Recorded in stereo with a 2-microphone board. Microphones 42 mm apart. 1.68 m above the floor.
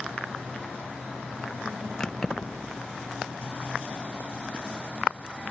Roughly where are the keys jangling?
Centre.